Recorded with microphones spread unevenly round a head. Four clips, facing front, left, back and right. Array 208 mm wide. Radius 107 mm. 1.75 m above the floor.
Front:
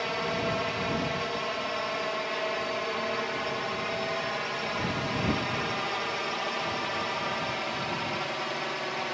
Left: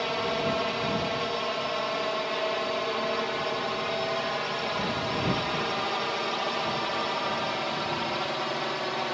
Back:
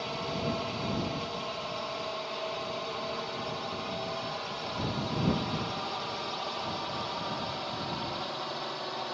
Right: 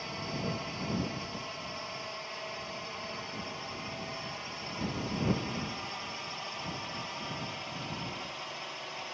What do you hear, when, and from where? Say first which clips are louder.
0.0 s a drone: left 10 dB, front 4 dB; 60° left; by 9.2 s 65° left